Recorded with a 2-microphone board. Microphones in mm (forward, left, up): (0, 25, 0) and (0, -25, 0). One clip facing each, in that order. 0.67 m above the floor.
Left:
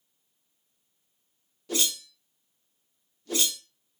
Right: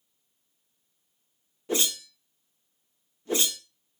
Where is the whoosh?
30° right (ahead or behind), 0.6 m.